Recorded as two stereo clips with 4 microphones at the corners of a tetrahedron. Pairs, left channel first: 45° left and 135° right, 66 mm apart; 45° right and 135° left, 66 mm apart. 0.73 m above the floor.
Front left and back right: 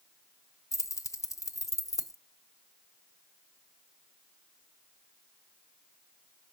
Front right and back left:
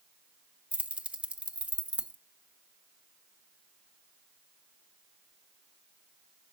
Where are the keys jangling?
65° left, 0.6 m.